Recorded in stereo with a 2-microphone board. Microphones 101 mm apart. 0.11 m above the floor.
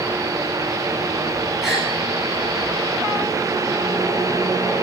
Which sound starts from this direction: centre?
A gasp, at 1.6 s.